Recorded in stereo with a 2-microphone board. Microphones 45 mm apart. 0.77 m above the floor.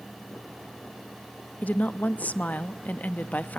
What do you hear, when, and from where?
1.6 s a woman speaking: 35° left (ahead or behind), 0.7 m